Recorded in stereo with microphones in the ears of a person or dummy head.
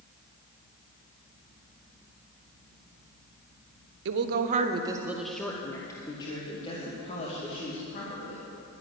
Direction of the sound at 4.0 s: 70° right (ahead or behind).